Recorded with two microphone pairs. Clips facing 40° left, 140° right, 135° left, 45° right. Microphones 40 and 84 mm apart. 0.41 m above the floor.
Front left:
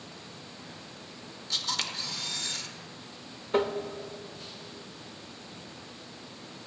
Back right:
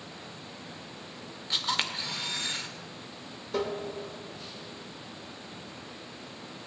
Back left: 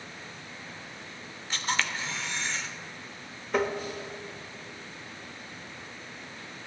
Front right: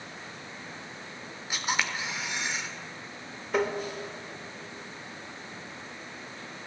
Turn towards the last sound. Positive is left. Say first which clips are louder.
# front left 4 dB, even
turn(degrees=45)